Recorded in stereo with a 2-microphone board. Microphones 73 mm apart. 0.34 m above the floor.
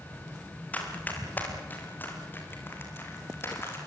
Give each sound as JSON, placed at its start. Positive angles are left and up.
{"t": 0.7, "sound": "running footsteps", "side_deg": 25, "distance_m": 7.0}